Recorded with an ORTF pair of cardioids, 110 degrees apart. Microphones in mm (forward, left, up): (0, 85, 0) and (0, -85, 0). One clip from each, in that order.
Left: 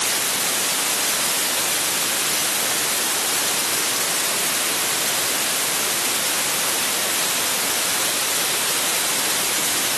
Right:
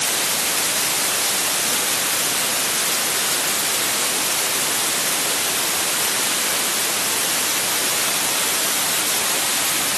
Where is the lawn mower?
No lawn mower in this recording.